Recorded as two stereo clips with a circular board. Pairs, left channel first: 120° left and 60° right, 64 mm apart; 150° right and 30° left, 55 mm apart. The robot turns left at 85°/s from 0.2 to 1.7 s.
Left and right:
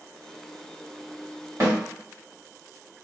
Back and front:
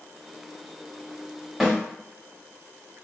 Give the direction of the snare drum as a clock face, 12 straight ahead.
2 o'clock.